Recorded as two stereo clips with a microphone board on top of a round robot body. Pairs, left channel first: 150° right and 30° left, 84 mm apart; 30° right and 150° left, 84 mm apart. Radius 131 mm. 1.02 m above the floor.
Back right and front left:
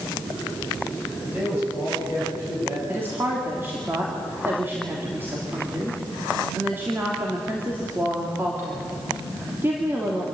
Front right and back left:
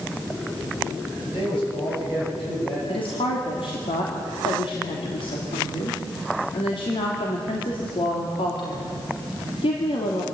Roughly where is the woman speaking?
Ahead right.